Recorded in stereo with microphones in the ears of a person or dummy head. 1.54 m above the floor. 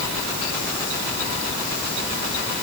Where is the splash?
No splash in this recording.